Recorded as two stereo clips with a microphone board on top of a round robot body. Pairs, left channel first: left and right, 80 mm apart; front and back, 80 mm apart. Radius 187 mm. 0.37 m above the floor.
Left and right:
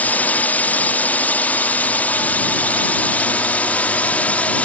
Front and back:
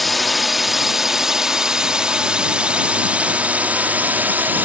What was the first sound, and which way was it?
A drone, 90° left.